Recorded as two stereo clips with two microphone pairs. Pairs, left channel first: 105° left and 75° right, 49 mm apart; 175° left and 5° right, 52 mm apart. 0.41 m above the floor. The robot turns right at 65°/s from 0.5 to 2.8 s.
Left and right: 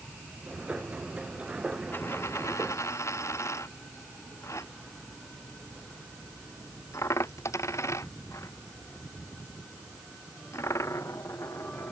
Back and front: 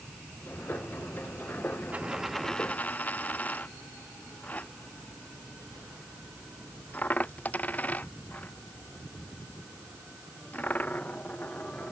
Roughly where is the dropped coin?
Ahead left.